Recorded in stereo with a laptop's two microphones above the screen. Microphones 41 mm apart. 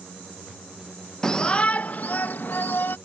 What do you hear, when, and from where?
1.2 s a shout: 10° left (ahead or behind); by 3.0 s 60° left (ahead or behind)